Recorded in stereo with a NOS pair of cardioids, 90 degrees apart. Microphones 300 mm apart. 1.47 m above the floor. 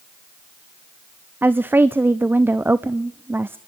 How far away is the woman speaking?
About 0.6 m.